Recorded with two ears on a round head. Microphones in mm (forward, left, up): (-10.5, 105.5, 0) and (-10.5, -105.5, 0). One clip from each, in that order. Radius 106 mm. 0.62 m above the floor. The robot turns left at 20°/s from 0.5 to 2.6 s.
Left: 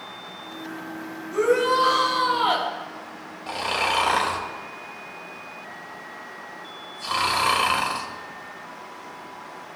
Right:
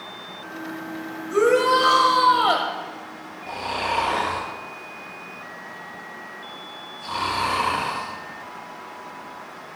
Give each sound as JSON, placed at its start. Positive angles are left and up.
{"t": 1.3, "sound": "a shout", "side_deg": -40, "distance_m": 2.5}
{"t": 3.5, "sound": "snoring", "side_deg": 65, "distance_m": 3.5}